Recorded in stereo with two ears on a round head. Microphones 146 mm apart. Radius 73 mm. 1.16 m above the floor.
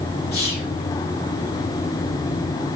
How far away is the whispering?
About 2.5 m.